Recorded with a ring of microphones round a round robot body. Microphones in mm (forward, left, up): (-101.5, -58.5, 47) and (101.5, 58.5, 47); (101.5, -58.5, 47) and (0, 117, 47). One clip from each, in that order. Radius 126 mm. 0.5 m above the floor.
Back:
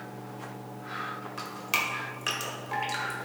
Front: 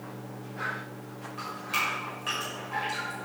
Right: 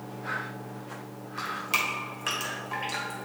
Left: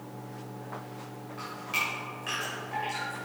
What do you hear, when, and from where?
1.4 s dripping: 110° right, 1.7 m